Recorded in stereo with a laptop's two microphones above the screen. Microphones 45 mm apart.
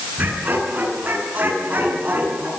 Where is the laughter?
35° right (ahead or behind), 10 m.